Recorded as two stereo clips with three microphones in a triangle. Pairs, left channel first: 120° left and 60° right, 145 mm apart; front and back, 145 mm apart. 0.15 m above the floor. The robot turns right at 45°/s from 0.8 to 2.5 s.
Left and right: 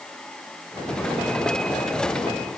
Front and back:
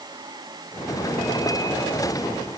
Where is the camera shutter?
I don't hear a camera shutter.